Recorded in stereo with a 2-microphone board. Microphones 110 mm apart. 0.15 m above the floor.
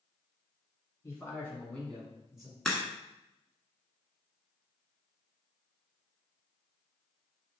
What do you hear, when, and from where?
1.0 s a man speaking: 25° left (ahead or behind), 1.8 m; by 2.5 s 10° right (ahead or behind), 1.6 m
2.6 s a crack: 5° left (ahead or behind), 0.9 m